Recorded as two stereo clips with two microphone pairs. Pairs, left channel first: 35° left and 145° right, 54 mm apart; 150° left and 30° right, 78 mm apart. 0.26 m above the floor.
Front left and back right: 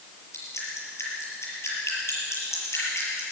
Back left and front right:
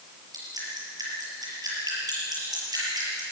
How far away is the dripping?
About 6.5 m.